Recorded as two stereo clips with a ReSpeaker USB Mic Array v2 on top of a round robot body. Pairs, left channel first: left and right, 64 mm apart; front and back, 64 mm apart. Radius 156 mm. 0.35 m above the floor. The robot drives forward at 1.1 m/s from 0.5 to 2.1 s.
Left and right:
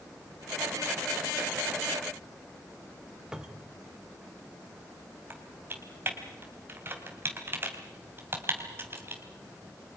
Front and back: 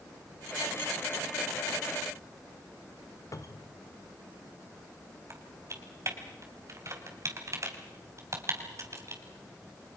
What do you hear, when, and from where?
3.3 s a cupboard door: 10° right, 1.7 m
5.3 s typing on a keyboard: 140° right, 3.5 m